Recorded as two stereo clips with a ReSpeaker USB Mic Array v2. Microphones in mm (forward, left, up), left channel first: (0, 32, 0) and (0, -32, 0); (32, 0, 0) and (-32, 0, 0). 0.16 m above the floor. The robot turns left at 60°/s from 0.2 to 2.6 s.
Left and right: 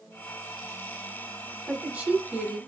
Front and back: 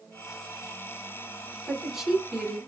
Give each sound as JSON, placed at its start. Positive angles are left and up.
{"t": 1.7, "sound": "a woman speaking", "azimuth_deg": -85, "distance_m": 1.4}